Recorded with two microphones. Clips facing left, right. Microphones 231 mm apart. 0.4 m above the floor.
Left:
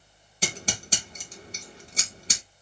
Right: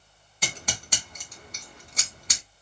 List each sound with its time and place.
0.4 s scissors: 30° left (ahead or behind), 1.6 m